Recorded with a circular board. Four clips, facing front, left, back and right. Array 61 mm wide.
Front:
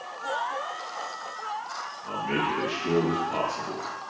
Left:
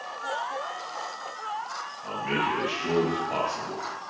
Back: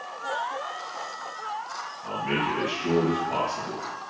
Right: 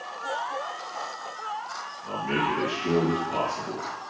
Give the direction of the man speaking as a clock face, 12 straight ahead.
8 o'clock.